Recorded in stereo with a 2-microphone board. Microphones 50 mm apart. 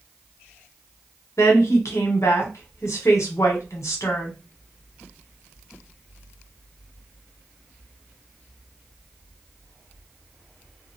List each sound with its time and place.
1.4 s a woman speaking: 70° left (ahead or behind), 0.9 m